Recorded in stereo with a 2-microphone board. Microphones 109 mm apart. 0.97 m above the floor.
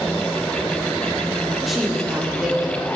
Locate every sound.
1.7 s a woman speaking: centre (ahead or behind), 3 m; by 2.9 s 5° right (ahead or behind), 3.5 m